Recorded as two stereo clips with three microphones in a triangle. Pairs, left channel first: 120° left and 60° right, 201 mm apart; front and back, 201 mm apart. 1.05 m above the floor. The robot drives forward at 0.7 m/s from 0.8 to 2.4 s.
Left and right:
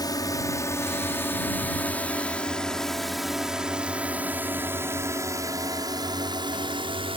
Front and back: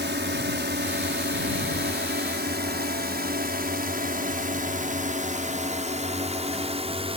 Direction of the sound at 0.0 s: 170° right.